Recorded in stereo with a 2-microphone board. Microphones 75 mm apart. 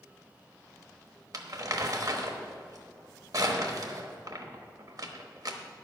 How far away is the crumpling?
About 1.1 m.